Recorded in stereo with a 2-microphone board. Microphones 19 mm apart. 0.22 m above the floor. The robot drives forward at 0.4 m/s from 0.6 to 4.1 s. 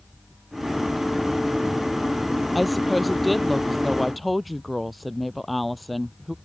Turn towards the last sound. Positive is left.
turn(degrees=0)  # may be behind; listen again after turning